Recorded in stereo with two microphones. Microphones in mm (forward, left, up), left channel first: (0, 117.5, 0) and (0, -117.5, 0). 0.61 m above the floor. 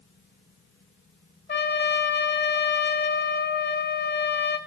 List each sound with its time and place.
1.5 s a trumpet: 45° left (ahead or behind), 0.5 m